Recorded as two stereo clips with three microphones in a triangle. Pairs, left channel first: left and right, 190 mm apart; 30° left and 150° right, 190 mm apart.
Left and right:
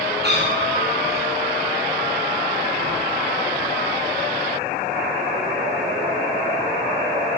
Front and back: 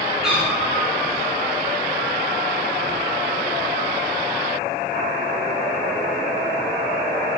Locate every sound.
0.2 s a cat meowing: 60° right, 9.5 m